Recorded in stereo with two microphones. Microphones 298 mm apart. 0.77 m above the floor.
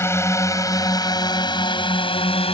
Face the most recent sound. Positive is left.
turn(degrees=20)  # may be behind; listen again after turning